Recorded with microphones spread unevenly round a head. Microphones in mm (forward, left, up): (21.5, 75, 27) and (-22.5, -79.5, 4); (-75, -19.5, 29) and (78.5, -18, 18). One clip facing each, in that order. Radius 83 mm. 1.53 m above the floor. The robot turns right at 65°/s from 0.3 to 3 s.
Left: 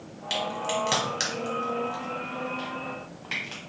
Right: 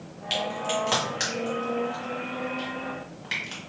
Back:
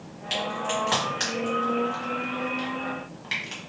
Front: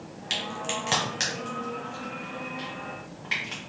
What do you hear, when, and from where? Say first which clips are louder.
0.3 s a crack: right 1 dB, back 5 dB; 5° left, 1.5 m; by 3.6 s straight behind, 1.5 m